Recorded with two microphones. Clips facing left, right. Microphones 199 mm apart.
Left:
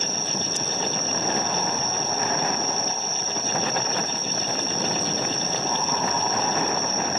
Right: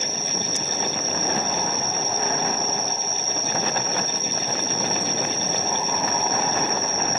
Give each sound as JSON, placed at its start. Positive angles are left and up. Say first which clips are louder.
{"t": 0.0, "sound": "an insect", "louder": "even", "side_deg": 65, "distance_m": 9.5}